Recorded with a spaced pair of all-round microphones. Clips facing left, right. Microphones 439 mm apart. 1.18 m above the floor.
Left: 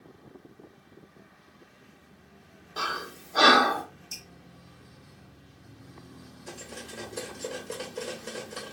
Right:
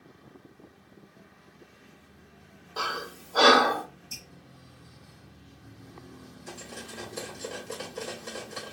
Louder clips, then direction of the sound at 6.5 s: Left 1 dB; 5° right (ahead or behind).